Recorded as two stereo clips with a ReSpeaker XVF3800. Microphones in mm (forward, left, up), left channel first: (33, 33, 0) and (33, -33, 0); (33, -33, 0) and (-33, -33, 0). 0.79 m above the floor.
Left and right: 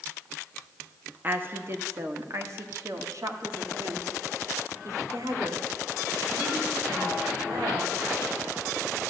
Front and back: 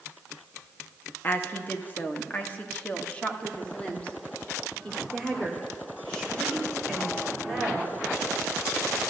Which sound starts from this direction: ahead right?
A woman speaking, at 1.2 s.